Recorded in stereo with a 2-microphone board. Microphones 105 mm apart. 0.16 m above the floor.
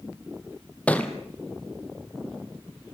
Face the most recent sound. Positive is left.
turn(degrees=15)  # may be behind; listen again after turning